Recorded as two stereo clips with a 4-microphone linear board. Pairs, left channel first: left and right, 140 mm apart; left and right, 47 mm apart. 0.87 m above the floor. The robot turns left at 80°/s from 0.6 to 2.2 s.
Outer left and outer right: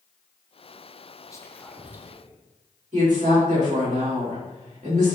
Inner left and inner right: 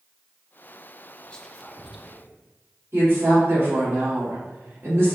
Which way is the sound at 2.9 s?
55° right (ahead or behind).